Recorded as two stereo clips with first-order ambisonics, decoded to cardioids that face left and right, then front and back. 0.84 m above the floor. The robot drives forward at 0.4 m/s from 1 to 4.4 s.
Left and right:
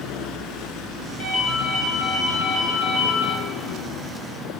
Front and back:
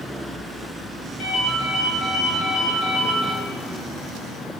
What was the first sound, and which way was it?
A ringtone, 35° left.